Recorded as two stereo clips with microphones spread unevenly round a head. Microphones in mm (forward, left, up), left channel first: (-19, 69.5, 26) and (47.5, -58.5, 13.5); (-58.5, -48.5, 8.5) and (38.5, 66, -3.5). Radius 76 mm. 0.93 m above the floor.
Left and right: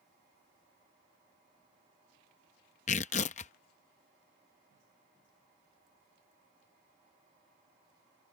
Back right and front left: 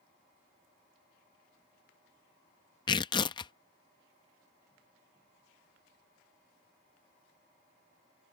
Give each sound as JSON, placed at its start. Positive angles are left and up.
{"t": 2.9, "sound": "tearing paper", "azimuth_deg": 165}